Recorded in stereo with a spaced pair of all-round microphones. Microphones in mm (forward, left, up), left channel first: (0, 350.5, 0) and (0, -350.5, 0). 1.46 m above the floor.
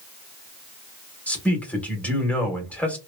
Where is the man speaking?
Centre (ahead or behind), 1.0 m.